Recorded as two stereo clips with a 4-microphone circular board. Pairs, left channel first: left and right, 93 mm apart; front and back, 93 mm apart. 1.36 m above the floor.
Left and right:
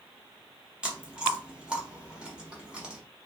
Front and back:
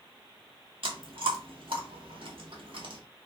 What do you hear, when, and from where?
0.8 s chewing: 170° right, 1.0 m